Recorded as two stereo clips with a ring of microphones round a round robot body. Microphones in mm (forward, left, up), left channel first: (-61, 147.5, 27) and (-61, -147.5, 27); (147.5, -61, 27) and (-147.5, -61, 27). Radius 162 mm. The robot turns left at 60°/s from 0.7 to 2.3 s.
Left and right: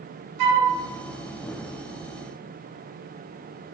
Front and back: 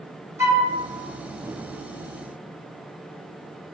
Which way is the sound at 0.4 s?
100° right.